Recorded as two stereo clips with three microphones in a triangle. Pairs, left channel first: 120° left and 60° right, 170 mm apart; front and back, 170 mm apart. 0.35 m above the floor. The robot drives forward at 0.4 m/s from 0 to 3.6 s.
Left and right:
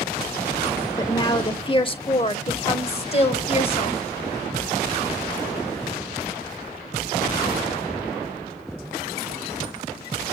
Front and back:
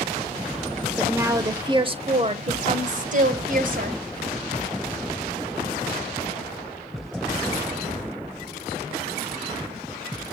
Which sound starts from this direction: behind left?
A woman speaking, at 1.0 s.